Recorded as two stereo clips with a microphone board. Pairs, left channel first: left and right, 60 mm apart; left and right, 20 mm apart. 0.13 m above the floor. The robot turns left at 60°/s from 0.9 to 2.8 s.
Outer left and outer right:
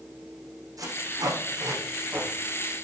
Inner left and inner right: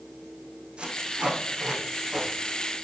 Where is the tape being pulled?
70° right (ahead or behind), 5 m; by 2.3 s 20° right (ahead or behind), 5 m.